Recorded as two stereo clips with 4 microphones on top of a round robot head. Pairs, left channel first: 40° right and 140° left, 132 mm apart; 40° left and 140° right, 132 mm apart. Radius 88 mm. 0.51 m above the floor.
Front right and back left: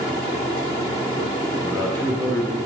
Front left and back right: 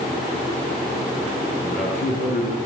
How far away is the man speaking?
About 8 m.